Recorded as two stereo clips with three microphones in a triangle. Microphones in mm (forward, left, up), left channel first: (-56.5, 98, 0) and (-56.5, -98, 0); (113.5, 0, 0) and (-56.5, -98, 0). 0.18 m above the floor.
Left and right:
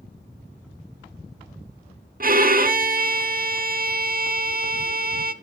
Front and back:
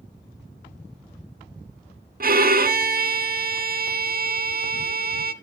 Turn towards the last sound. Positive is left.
turn(degrees=-120)